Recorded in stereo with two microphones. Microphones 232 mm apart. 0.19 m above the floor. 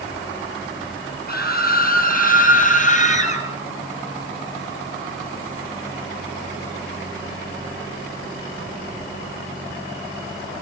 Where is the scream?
40° left (ahead or behind), 6 m; by 3.5 s 30° left (ahead or behind), 4.5 m.